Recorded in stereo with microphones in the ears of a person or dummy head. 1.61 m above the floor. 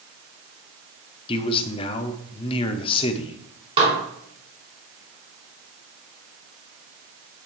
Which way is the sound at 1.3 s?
30° left (ahead or behind).